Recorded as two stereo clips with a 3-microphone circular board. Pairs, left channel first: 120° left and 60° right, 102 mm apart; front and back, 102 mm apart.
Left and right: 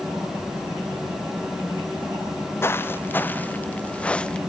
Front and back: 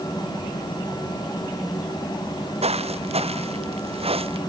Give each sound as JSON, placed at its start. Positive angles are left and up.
{"t": 2.2, "sound": "footsteps", "azimuth_deg": -175}